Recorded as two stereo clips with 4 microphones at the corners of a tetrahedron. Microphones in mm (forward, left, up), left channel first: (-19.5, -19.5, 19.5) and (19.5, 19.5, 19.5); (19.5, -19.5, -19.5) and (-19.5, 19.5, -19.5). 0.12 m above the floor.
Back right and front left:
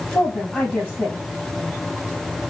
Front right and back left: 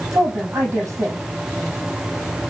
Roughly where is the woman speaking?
Behind.